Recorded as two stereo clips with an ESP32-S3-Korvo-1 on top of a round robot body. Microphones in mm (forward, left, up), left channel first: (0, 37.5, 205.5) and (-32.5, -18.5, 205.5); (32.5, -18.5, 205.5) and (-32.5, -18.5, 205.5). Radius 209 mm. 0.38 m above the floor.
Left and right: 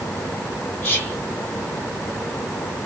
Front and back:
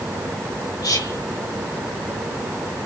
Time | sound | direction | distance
0.8 | whispering | 5° left | 3.5 m